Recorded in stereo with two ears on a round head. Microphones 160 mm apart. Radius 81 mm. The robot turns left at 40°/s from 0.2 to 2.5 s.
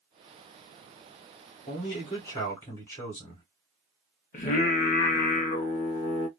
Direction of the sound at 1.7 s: 65° left.